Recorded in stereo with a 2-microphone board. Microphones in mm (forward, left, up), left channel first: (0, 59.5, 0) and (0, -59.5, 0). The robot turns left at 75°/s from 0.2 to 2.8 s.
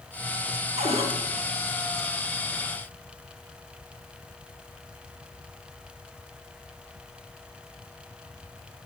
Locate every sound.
0.8 s a cupboard door: 75° right (ahead or behind), 0.9 m; by 1.1 s 55° right (ahead or behind), 0.9 m